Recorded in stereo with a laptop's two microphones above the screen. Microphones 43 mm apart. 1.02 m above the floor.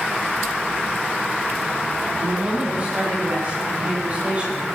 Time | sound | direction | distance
2.1 | a woman speaking | 35° right (ahead or behind) | 8 m